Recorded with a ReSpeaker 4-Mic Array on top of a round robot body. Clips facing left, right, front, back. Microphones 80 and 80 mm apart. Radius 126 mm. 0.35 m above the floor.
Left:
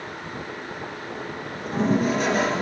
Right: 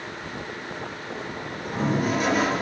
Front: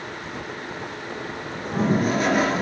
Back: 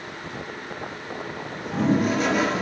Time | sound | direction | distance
1.6 | a toilet flushing | 45° left | 3 m